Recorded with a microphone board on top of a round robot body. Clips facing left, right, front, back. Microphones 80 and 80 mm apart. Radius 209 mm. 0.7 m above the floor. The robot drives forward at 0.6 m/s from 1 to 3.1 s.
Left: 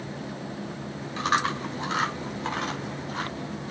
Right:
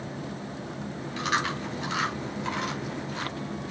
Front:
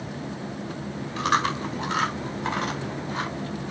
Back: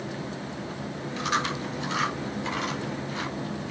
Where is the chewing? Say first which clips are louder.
Left 3 dB, front 5 dB; 35° left, 5 m; by 3.7 s 45° left, 4 m.